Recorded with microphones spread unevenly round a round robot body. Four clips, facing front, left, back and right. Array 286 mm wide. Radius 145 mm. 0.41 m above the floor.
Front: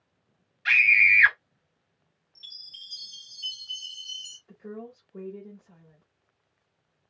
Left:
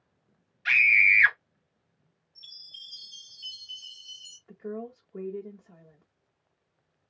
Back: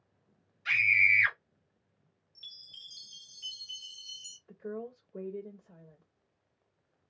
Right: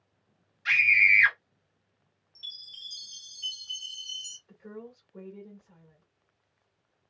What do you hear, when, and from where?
0.7 s a scream: 20° left, 1.7 m
2.4 s a chime: 155° right, 0.6 m
4.5 s a woman speaking: 85° left, 1.4 m